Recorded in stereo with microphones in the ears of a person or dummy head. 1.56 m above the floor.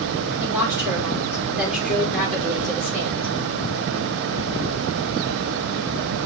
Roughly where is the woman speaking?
Centre.